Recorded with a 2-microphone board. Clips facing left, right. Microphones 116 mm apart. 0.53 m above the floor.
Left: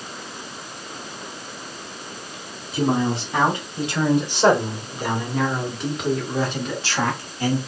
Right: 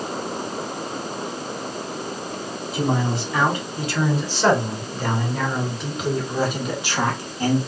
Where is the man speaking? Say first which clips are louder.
Left 2 dB; 30° left (ahead or behind), 3 m; by 7.6 s 25° right (ahead or behind), 2.0 m.